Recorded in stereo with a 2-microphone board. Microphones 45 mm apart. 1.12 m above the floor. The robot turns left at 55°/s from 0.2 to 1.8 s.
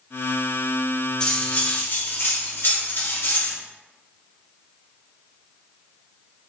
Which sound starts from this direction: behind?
Cutlery clinking, at 1.2 s.